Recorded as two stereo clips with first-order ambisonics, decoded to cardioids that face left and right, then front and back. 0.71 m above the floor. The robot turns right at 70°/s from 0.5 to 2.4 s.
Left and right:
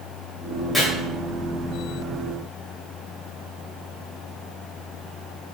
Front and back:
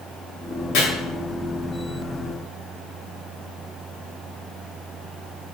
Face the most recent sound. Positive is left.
turn(degrees=130)